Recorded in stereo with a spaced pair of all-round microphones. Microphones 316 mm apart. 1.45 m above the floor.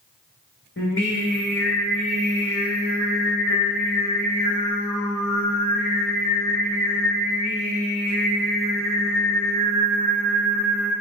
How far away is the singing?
About 1.2 m.